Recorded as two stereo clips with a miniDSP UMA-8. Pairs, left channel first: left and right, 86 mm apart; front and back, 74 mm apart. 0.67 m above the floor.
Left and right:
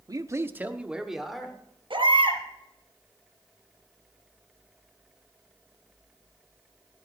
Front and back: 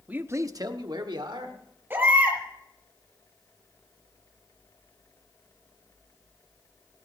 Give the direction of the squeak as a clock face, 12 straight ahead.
I don't hear a squeak.